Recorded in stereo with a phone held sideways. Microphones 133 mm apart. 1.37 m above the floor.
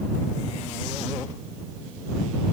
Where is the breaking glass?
No breaking glass in this recording.